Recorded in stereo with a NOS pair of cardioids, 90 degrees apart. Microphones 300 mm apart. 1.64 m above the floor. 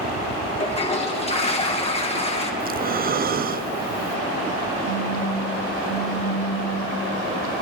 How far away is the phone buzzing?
About 6 m.